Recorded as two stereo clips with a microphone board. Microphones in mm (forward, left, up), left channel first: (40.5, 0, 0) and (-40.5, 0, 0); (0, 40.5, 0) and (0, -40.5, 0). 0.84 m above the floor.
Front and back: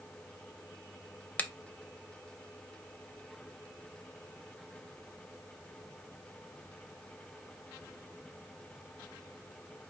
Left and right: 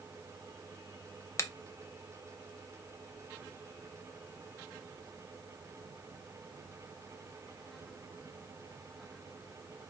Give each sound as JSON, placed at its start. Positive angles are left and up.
{"t": 1.4, "sound": "a finger snap", "azimuth_deg": 60, "distance_m": 0.5}